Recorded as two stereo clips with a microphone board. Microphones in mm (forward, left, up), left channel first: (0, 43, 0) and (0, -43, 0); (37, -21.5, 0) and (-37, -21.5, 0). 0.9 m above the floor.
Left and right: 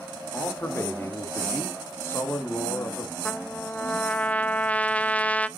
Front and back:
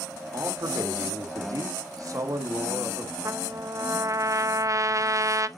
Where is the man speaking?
150° left, 2 m.